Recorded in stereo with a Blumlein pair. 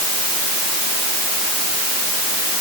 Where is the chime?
I don't hear a chime.